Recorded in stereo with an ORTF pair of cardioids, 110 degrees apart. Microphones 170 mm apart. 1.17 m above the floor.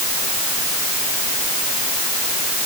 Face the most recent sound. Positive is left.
No sound to turn to.